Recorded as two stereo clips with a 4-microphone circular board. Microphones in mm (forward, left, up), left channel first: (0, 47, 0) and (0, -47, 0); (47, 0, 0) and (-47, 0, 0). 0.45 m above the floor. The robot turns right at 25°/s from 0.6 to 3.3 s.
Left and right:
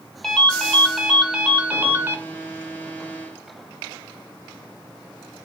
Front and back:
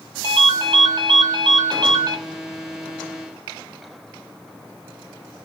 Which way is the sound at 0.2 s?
175° left.